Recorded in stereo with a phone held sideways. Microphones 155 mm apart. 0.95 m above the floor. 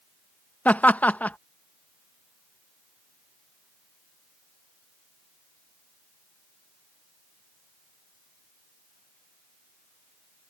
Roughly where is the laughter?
Centre.